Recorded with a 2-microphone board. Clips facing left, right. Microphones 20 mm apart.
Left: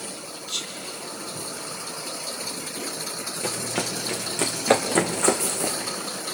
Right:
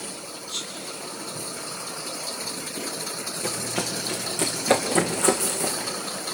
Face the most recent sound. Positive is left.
turn(degrees=15)  # may be behind; listen again after turning